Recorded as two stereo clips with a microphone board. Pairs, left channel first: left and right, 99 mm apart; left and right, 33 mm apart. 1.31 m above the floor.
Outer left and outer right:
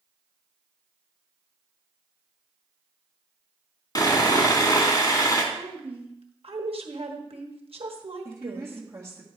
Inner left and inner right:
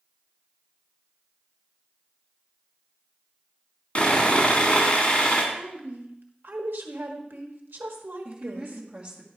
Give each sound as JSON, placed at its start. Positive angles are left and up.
{"t": 4.0, "sound": "sawing", "side_deg": 40, "distance_m": 1.7}
{"t": 5.5, "sound": "a woman speaking", "side_deg": -75, "distance_m": 1.3}
{"t": 8.2, "sound": "a woman speaking", "side_deg": -30, "distance_m": 1.8}